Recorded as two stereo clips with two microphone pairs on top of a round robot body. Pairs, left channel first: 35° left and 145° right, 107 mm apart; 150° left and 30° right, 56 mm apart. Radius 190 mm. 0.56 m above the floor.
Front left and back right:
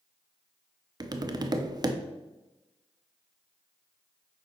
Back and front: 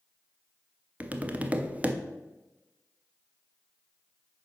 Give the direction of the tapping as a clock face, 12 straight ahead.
3 o'clock.